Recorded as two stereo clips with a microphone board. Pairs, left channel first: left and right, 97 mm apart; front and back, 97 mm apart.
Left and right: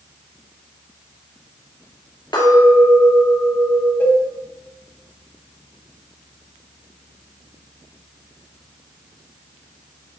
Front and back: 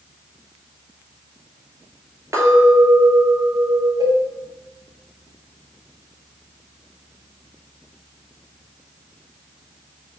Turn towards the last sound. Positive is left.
turn(degrees=150)